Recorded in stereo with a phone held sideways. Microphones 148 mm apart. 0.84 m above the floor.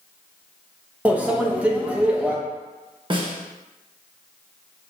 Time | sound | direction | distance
1.1 | a microwave | 10° right (ahead or behind) | 0.7 m
3.1 | a snare drum | 30° right (ahead or behind) | 0.9 m